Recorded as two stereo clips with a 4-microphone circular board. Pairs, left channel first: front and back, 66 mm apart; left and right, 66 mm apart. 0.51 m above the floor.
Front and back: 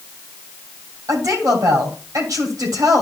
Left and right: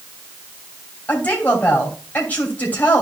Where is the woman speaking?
155° left, 3 m.